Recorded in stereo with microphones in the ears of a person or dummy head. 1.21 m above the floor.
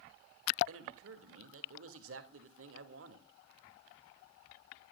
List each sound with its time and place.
0.7 s a man speaking: 80° right, 2.5 m